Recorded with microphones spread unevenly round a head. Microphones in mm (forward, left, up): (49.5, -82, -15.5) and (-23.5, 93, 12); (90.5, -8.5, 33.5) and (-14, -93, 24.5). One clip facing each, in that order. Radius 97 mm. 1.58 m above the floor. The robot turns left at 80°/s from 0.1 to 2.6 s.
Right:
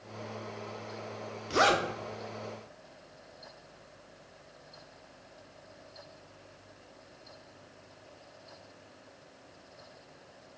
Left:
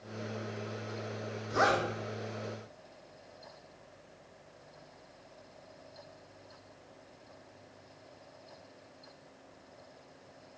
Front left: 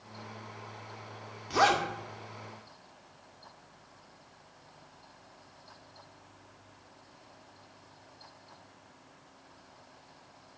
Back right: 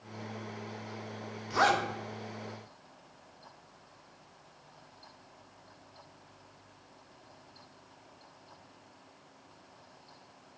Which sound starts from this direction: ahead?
A zipper, at 1.5 s.